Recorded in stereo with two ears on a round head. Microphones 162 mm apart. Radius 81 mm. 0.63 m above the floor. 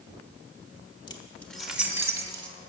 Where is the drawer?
No drawer in this recording.